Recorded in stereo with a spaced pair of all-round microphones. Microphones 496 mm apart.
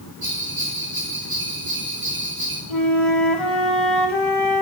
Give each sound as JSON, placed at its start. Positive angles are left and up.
{"t": 0.2, "sound": "a bell", "side_deg": -45, "distance_m": 5.5}
{"t": 2.7, "sound": "a flute", "side_deg": 65, "distance_m": 2.5}